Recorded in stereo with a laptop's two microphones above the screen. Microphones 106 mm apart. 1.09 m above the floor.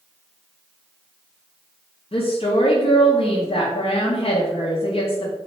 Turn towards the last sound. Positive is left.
turn(degrees=65)  # may be behind; listen again after turning